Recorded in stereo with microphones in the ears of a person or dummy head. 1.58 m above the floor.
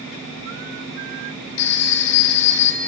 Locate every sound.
1.6 s a phone ringing: 70° left (ahead or behind), 2 m